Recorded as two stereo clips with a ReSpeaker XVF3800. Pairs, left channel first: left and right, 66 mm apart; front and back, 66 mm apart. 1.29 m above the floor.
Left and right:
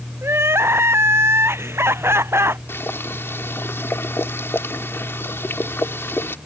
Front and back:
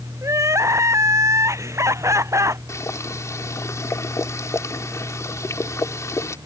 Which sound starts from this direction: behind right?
Crying, at 0.2 s.